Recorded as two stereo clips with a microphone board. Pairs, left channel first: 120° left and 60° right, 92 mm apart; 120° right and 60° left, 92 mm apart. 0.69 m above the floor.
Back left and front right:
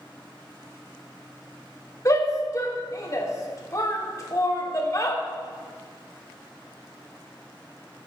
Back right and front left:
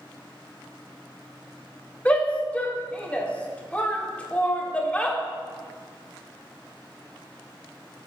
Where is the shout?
165° left, 1.5 m.